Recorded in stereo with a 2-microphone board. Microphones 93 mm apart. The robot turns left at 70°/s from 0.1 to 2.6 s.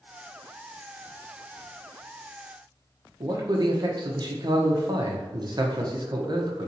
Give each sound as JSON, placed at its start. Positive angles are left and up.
{"t": 3.2, "sound": "a man speaking", "side_deg": -45, "distance_m": 0.8}